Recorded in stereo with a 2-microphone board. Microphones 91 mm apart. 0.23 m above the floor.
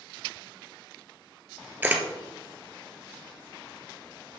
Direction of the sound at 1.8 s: 20° right (ahead or behind).